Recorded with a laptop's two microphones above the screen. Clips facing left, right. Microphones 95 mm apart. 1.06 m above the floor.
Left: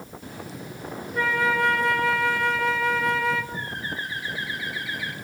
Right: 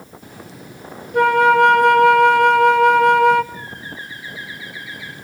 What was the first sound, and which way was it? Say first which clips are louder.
A flute: right 11 dB; 70° right (ahead or behind).